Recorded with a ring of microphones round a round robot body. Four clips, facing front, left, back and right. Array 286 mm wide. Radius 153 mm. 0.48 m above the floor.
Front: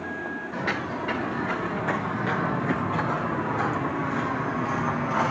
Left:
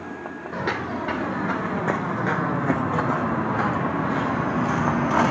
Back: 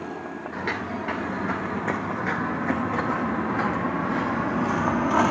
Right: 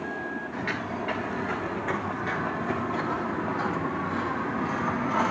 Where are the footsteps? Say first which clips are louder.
Left 8 dB, even; 95° left, 4 m; by 5.3 s 125° left, 1.7 m.